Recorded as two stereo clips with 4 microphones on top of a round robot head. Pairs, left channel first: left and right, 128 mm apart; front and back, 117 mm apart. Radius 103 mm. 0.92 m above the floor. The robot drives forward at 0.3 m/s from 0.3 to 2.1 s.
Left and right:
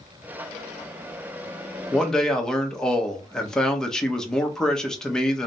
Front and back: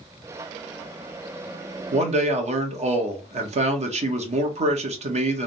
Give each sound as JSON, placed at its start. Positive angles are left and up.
{"t": 1.9, "sound": "a man speaking", "azimuth_deg": 175, "distance_m": 1.1}